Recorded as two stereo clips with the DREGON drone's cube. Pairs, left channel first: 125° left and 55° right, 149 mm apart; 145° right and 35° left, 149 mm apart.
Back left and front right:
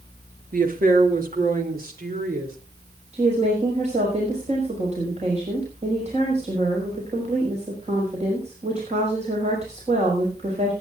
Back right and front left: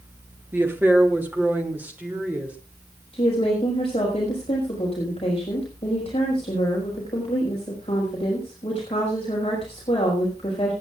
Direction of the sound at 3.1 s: 95° right.